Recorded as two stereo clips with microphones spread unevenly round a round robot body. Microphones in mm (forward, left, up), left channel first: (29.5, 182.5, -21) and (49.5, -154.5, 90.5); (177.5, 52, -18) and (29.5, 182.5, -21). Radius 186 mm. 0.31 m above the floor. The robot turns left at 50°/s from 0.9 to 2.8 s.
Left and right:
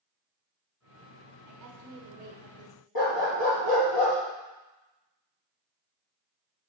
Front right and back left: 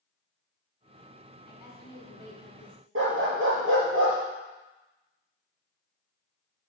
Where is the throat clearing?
I don't hear throat clearing.